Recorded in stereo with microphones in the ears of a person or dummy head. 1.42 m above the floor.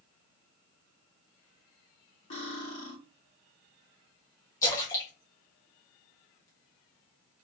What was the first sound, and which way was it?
Cutlery clinking, 30° left (ahead or behind).